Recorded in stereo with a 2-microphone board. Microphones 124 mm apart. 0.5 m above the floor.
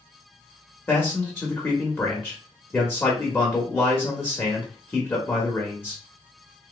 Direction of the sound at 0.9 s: 15° left (ahead or behind).